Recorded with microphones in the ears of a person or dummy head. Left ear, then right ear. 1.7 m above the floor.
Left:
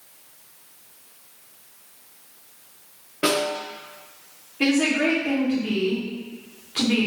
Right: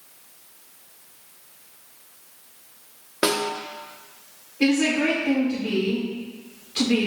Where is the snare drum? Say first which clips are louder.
Left 1 dB; 50° right (ahead or behind), 0.8 m.